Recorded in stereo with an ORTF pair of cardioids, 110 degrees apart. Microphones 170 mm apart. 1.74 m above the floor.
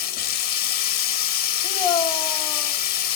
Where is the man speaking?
25° left, 3 m.